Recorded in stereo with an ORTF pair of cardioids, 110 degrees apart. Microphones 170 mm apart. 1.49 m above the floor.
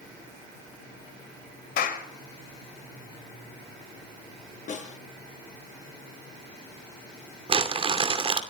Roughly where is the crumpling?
Ahead right.